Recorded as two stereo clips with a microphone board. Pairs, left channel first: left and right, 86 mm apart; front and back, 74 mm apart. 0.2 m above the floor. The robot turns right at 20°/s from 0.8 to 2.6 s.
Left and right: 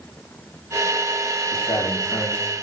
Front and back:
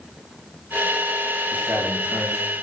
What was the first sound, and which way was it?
A man speaking, 110° left.